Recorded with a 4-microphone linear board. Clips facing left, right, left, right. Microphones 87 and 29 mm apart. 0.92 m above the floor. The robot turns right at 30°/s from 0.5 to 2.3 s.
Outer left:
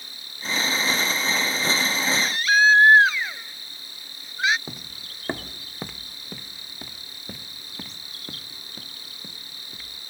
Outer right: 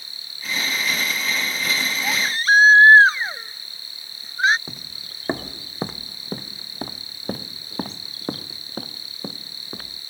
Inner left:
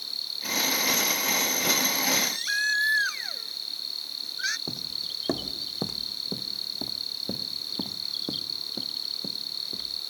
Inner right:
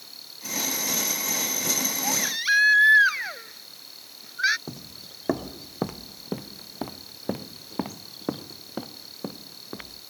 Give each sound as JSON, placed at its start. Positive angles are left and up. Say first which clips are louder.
{"t": 0.0, "sound": "an insect", "louder": "outer left 1 dB, inner left 9 dB", "azimuth_deg": 60}
{"t": 2.0, "sound": "a baby crying", "louder": "outer right 6 dB, inner right 1 dB", "side_deg": -25}
{"t": 4.7, "sound": "footsteps", "louder": "outer left 1 dB, inner left 8 dB", "side_deg": 5}